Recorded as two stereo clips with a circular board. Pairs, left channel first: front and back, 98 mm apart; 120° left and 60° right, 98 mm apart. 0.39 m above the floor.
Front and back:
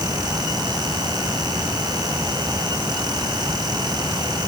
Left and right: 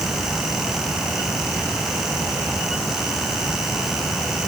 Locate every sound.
Only background noise.